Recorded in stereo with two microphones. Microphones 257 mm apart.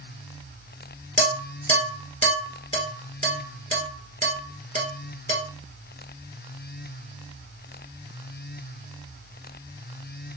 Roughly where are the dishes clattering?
Right.